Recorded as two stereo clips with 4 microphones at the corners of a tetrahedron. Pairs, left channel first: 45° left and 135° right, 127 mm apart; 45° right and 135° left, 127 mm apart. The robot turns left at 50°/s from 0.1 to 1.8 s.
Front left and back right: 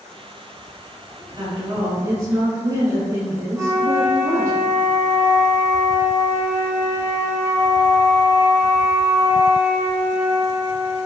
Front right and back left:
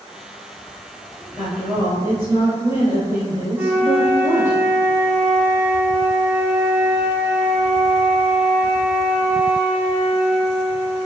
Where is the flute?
175° right, 0.6 m.